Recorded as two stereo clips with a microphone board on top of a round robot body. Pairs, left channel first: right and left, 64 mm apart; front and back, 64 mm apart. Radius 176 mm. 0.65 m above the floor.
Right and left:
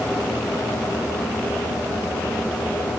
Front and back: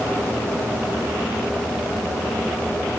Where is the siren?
No siren in this recording.